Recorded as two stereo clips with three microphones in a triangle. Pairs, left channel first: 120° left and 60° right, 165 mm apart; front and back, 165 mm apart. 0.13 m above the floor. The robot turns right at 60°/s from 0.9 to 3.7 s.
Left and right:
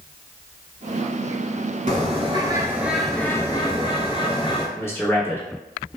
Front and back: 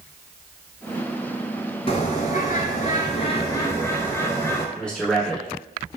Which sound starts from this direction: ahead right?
A bird, at 1.9 s.